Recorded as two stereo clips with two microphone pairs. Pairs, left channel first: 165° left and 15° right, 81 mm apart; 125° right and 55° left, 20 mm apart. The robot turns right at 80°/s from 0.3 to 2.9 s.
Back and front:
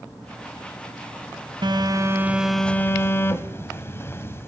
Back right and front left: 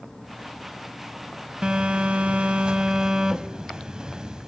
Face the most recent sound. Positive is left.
turn(degrees=110)